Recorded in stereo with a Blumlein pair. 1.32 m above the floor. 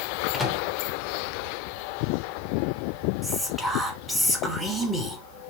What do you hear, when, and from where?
0.3 s a microwave: 10° left, 0.9 m
3.2 s whispering: straight ahead, 1.5 m